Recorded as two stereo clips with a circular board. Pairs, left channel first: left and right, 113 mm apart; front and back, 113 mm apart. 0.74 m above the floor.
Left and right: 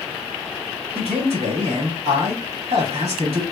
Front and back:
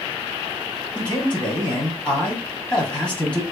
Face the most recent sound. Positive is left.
turn(degrees=-75)